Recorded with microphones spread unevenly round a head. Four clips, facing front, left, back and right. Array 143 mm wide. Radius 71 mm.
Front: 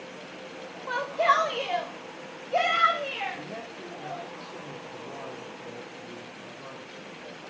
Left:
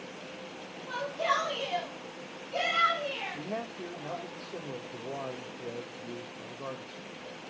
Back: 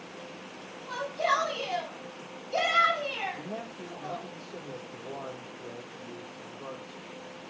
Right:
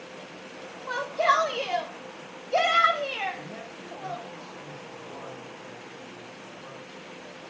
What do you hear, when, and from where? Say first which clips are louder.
0.9 s a shout: right 6 dB, front 5 dB; 45° right, 4 m; by 4.2 s 70° right, 6 m
3.3 s a man speaking: left 3 dB, even; 110° left, 2 m